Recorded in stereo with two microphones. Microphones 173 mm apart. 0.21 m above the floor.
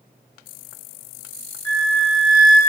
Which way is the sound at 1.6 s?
10° left (ahead or behind).